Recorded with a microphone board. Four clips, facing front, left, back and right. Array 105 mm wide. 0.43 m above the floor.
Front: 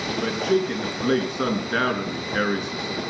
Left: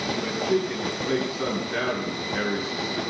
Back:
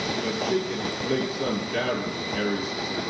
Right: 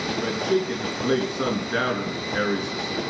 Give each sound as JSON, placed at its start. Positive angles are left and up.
{"t": 0.2, "sound": "a man speaking", "azimuth_deg": -15, "distance_m": 5.5}